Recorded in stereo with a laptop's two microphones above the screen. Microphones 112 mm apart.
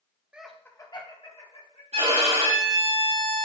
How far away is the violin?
About 5 m.